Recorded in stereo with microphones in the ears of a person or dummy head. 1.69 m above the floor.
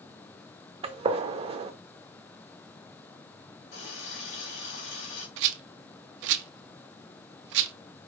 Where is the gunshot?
35° right (ahead or behind), 0.5 m.